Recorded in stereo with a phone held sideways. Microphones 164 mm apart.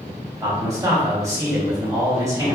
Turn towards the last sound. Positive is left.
turn(degrees=-20)  # may be behind; listen again after turning